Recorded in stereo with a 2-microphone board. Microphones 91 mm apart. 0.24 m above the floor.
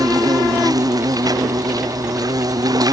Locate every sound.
0.0 s an insect: 45° right (ahead or behind)